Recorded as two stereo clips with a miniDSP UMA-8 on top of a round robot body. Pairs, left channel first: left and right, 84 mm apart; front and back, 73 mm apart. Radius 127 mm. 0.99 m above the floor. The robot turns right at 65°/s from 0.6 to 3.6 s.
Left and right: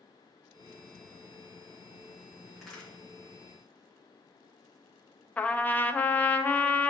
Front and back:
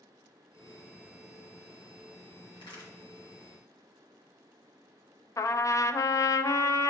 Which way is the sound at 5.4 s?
25° left.